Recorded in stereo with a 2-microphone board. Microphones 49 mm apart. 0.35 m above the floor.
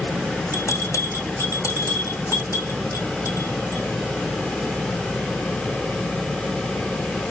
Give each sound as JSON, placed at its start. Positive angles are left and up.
{"t": 0.5, "sound": "a bell", "side_deg": 75, "distance_m": 3.5}